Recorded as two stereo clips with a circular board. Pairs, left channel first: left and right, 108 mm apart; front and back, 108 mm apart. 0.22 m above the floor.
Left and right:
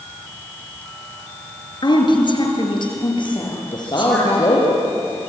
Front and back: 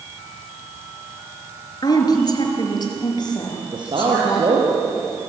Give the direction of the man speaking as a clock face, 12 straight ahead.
7 o'clock.